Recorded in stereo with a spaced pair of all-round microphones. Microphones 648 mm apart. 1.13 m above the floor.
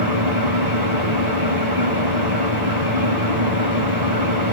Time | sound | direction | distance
0.0 | an engine running | 75° right (ahead or behind) | 3.5 m